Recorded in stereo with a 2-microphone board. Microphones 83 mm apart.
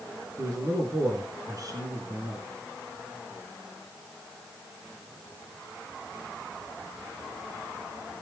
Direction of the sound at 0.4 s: 50° right (ahead or behind).